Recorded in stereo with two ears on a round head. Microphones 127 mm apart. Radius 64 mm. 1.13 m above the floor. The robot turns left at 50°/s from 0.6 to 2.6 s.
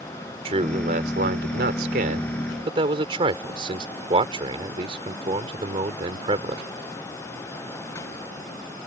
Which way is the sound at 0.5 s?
40° right (ahead or behind).